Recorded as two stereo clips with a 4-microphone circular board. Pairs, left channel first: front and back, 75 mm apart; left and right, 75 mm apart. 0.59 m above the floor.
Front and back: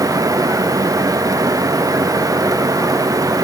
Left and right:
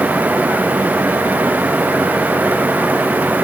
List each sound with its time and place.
Only background noise.